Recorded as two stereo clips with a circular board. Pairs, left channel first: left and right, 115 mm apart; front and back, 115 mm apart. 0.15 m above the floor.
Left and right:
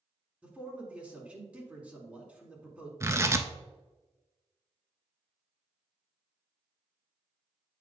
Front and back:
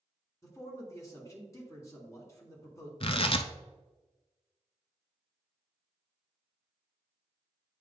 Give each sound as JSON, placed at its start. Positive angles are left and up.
{"t": 0.4, "sound": "a man speaking", "azimuth_deg": -20, "distance_m": 1.8}
{"t": 3.0, "sound": "tearing paper", "azimuth_deg": -30, "distance_m": 0.6}